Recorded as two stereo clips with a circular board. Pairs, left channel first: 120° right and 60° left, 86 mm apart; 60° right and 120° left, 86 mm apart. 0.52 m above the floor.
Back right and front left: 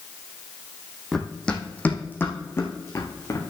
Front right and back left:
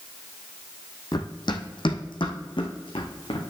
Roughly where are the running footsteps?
Ahead right.